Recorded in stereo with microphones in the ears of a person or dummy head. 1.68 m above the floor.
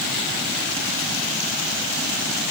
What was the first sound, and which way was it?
Only background noise.